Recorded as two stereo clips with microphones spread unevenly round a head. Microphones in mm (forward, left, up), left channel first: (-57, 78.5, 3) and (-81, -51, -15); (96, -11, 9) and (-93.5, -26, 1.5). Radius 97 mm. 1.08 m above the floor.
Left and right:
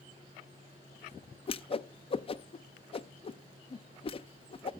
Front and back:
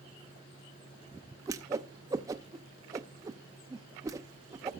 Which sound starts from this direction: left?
A whoosh, at 1.5 s.